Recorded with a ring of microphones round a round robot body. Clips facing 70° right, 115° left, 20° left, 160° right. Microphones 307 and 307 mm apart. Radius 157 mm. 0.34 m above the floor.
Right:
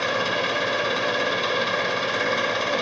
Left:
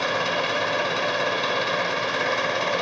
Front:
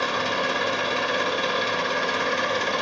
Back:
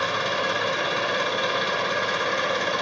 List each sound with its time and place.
0.0 s an engine running: 10° right, 1.4 m